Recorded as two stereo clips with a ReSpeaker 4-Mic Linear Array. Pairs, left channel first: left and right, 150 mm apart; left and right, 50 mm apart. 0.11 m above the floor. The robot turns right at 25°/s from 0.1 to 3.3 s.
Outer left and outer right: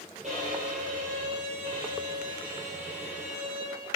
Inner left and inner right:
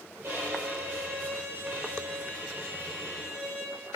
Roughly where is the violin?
Right.